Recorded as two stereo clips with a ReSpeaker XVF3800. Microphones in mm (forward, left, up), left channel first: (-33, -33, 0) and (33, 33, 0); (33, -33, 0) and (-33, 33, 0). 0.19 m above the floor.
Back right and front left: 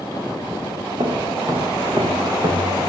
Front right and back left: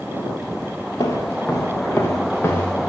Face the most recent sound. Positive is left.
turn(degrees=25)